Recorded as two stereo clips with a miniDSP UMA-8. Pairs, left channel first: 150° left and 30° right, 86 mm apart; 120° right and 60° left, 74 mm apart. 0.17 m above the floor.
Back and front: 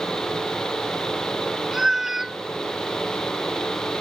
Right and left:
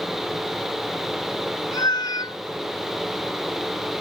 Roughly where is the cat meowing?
Behind right.